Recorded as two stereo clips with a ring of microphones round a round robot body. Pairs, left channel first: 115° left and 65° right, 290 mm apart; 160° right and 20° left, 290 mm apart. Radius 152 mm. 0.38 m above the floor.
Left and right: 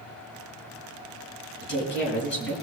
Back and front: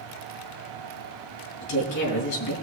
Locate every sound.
1.6 s a woman speaking: 165° left, 4.5 m